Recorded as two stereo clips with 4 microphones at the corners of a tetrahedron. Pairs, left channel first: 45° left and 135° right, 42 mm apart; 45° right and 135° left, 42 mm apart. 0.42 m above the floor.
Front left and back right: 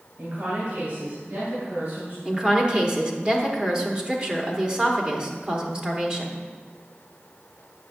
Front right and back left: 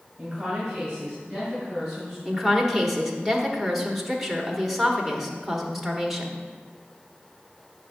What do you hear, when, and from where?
0.2 s a woman speaking: 145° right, 2 m; by 2.1 s 140° right, 4 m
2.2 s a woman speaking: 145° right, 1.0 m